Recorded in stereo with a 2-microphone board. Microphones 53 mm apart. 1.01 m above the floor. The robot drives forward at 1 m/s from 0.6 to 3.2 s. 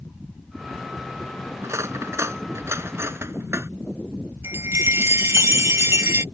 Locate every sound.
1.6 s cutlery clinking: 65° right (ahead or behind); by 3.7 s 55° right (ahead or behind)
4.4 s a chime: 60° right (ahead or behind)